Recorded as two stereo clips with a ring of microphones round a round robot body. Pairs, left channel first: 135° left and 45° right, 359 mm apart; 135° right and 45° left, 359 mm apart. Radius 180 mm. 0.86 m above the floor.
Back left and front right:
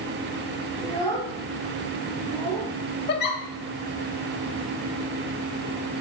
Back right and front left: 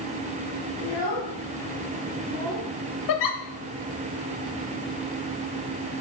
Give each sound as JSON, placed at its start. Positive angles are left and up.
{"t": 0.8, "sound": "a child speaking", "azimuth_deg": -120, "distance_m": 4.0}
{"t": 3.1, "sound": "a giggle", "azimuth_deg": -165, "distance_m": 1.0}